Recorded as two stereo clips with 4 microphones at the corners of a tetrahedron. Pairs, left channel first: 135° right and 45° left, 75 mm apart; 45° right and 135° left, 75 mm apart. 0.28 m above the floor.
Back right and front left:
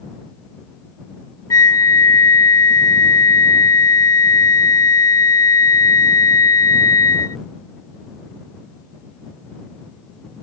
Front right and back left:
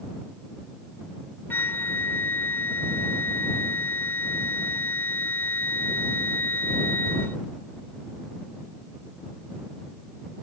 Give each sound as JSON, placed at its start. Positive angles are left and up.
{"t": 1.5, "sound": "a flute", "azimuth_deg": -105}